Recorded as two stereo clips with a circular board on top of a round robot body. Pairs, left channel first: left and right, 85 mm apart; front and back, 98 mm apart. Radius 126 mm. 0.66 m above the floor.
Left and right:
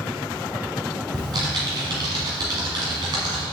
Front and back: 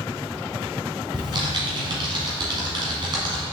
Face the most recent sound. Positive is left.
turn(degrees=-135)